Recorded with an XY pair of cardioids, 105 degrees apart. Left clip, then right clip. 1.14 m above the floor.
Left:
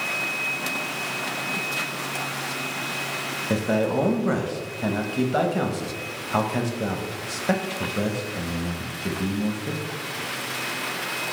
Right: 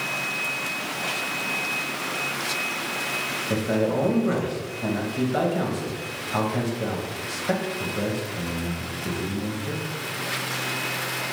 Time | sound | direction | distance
3.5 | a man speaking | 35° left | 0.8 m